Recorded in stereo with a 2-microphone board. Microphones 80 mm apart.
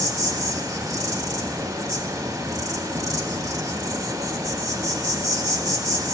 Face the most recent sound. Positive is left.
turn(degrees=-50)  # may be behind; listen again after turning